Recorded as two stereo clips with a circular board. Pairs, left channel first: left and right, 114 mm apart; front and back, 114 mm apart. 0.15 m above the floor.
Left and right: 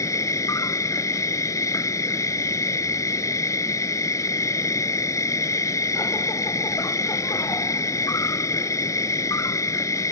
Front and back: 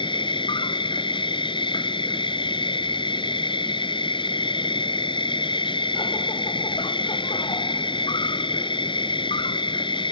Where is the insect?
35° left.